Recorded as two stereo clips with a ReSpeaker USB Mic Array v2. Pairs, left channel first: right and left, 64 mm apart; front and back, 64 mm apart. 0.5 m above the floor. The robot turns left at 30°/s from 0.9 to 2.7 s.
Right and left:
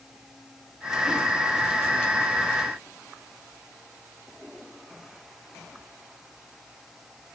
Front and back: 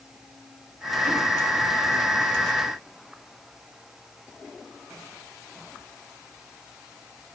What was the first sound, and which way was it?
Only background noise.